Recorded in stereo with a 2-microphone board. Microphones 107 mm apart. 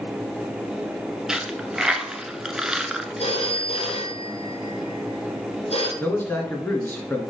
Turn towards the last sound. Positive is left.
turn(degrees=20)  # may be behind; listen again after turning